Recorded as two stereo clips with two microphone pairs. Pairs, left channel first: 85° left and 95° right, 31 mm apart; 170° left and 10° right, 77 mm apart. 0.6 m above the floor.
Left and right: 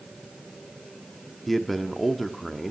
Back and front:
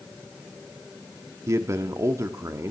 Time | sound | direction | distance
1.5 | a man speaking | straight ahead | 1.3 m